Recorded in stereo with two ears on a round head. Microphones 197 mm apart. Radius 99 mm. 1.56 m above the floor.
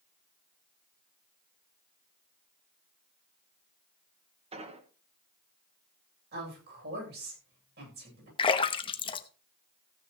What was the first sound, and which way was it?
An explosion, 30° right (ahead or behind).